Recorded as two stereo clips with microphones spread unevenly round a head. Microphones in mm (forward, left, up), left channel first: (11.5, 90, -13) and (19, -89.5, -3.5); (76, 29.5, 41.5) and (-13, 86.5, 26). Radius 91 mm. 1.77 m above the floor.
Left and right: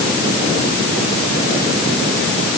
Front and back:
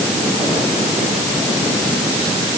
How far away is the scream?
I don't hear a scream.